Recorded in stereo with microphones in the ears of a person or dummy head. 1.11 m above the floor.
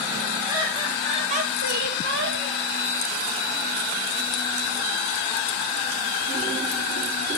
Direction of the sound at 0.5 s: 20° right (ahead or behind).